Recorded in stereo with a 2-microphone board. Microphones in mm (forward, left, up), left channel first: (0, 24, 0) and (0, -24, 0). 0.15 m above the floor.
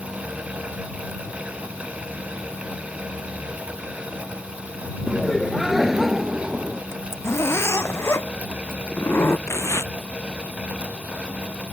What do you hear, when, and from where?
5.1 s laughter: centre (ahead or behind); by 6.8 s 10° right (ahead or behind)
6.9 s a zipper: 70° left (ahead or behind)
9.5 s tearing paper: 80° left